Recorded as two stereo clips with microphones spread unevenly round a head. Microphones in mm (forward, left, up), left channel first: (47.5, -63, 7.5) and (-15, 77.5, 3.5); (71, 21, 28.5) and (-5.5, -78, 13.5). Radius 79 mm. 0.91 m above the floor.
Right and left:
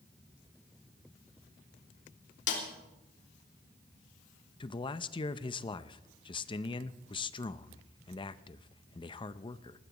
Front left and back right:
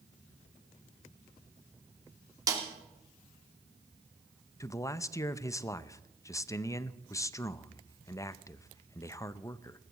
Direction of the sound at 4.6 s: 15° right.